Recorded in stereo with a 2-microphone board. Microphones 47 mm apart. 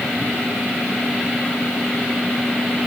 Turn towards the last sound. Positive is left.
No sound to turn to.